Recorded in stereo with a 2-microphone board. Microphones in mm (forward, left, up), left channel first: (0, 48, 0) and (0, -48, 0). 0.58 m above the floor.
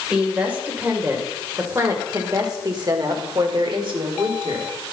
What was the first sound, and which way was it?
A woman speaking, 15° right (ahead or behind).